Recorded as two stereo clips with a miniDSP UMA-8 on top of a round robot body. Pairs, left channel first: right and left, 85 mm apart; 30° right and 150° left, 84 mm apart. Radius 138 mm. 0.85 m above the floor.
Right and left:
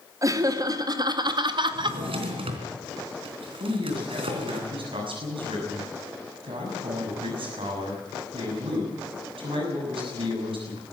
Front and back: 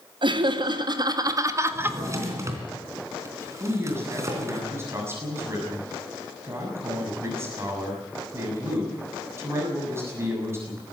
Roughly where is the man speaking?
Left.